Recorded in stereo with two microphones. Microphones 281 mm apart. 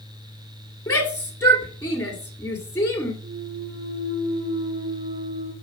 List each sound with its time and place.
0.9 s a shout: 10° left (ahead or behind), 2 m
3.2 s a clunk: 25° right (ahead or behind), 2 m